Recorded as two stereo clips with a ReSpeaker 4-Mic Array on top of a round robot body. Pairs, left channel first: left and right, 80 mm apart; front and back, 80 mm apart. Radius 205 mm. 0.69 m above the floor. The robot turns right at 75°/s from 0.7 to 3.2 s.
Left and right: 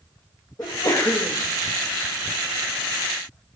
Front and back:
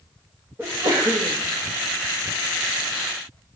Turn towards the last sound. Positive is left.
turn(degrees=-55)